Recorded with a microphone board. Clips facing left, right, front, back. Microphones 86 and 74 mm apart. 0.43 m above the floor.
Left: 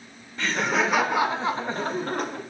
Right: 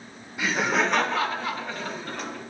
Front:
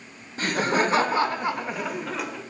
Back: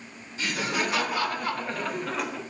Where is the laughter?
15° right, 0.9 m; by 2.4 s 95° left, 1.0 m.